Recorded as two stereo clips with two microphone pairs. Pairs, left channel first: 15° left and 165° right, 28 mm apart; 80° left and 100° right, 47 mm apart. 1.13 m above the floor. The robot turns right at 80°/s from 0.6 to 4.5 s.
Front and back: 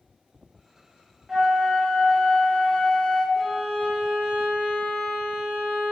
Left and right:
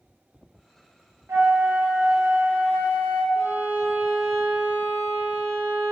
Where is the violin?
70° right, 0.9 m; by 5.9 s 25° left, 0.9 m.